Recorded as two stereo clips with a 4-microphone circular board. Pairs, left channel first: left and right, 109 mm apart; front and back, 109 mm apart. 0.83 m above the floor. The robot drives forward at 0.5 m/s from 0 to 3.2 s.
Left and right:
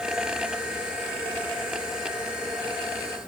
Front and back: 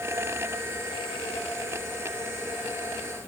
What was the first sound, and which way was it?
Only background noise.